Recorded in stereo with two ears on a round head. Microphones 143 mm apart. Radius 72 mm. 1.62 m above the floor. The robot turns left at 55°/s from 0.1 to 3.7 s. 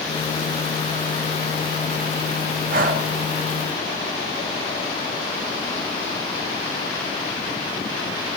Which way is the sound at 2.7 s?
60° right (ahead or behind).